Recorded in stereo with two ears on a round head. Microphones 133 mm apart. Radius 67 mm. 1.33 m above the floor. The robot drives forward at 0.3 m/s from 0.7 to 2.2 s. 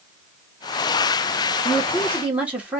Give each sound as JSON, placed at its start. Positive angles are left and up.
{"t": 1.6, "sound": "a woman speaking", "side_deg": -10, "distance_m": 1.1}